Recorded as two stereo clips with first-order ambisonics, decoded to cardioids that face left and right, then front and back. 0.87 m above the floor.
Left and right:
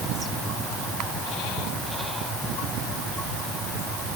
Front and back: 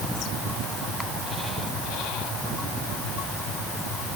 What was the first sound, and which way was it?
Only background noise.